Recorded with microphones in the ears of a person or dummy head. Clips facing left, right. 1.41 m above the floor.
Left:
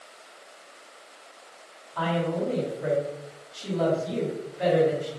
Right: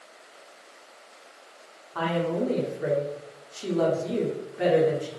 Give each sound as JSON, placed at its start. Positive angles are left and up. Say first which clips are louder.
{"t": 1.9, "sound": "a woman speaking", "louder": "right 1 dB", "side_deg": -65, "distance_m": 0.9}